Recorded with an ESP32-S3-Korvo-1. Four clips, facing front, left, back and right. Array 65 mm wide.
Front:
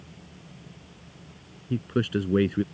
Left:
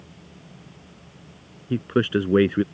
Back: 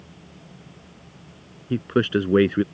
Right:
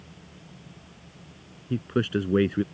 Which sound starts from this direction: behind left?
A man speaking, at 1.7 s.